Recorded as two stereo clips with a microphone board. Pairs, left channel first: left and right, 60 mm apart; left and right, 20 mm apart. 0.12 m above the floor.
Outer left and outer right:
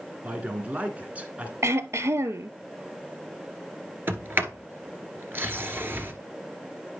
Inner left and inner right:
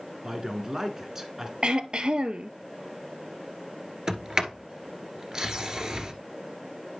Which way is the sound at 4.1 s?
40° right (ahead or behind).